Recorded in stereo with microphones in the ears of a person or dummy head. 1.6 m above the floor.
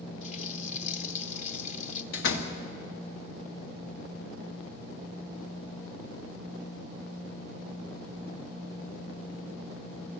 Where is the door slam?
70° left (ahead or behind), 1.9 m.